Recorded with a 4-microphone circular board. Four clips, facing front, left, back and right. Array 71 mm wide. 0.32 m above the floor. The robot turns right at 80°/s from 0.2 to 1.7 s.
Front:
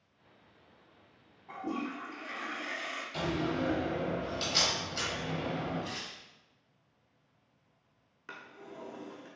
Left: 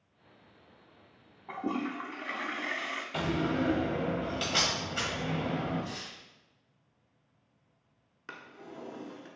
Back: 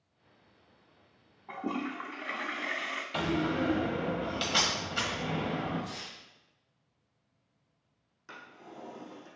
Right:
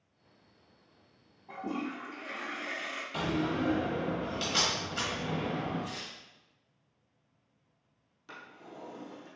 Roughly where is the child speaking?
I don't hear a child speaking.